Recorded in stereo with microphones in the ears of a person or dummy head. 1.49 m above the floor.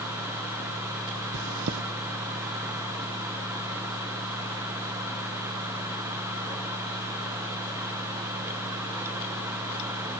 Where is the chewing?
60° right (ahead or behind), 0.8 m.